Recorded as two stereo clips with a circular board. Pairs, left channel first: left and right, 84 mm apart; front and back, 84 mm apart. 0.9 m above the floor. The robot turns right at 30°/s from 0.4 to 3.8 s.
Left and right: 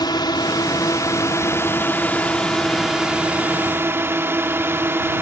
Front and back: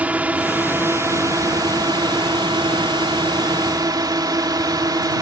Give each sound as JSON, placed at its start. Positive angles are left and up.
{"t": 0.0, "sound": "a drone", "azimuth_deg": 110}